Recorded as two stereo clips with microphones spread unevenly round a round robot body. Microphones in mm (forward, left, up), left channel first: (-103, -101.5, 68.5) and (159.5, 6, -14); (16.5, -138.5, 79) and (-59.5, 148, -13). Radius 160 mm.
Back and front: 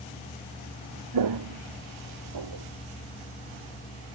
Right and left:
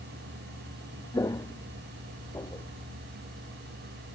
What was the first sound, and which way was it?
Footsteps, straight ahead.